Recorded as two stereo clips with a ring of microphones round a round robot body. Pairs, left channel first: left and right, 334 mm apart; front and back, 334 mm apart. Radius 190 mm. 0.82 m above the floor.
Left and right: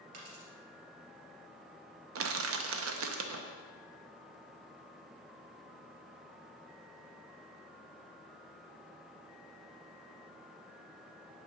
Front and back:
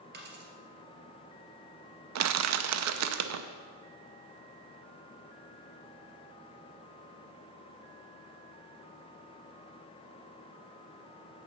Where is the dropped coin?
120° right, 2.5 m.